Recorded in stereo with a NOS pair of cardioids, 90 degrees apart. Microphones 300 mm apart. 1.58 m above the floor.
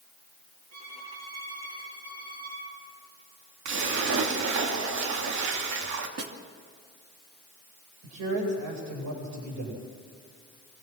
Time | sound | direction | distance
0.7 | a violin | 65° right | 8.5 m
3.6 | a splash | 70° right | 2.5 m
6.2 | a snare drum | 50° right | 3 m
8.0 | a man speaking | 65° right | 9 m